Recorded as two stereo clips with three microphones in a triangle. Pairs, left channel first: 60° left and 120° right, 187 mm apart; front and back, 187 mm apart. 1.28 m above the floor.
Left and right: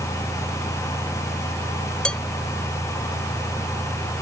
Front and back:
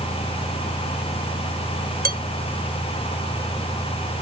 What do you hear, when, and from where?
2.0 s dishes clattering: 145° left